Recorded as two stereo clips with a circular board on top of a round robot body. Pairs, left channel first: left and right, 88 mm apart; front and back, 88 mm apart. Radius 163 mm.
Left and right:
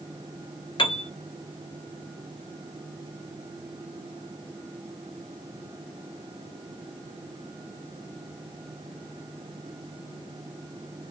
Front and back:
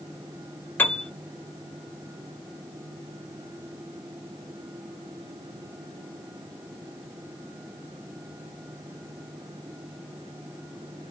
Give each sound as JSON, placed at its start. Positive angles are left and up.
{"t": 0.8, "sound": "a piano", "azimuth_deg": 70, "distance_m": 0.8}